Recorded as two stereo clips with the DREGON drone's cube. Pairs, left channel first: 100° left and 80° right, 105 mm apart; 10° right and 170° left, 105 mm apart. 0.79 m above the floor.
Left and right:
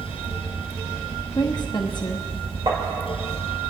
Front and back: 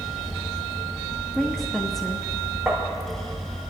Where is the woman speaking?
75° left, 0.9 m.